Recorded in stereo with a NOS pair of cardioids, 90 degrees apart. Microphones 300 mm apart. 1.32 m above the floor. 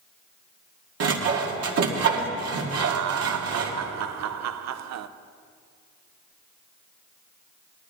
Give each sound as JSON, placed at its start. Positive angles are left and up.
{"t": 1.0, "sound": "sawing", "azimuth_deg": -55, "distance_m": 2.0}
{"t": 2.8, "sound": "laughter", "azimuth_deg": -65, "distance_m": 0.9}